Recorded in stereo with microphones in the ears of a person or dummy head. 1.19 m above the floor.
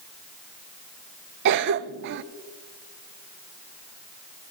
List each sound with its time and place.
1.4 s a cough: 60° right (ahead or behind), 0.5 m